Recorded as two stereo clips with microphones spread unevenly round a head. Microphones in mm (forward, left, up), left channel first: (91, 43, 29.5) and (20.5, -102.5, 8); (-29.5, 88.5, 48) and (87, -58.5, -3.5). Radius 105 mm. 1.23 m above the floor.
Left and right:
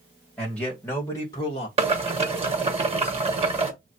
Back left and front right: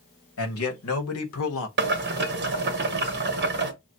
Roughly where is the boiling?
Right.